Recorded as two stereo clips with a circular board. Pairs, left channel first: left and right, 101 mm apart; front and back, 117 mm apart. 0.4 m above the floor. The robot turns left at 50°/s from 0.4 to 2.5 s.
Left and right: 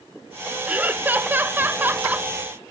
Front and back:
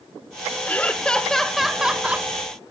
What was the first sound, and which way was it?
Laughter, 45° right.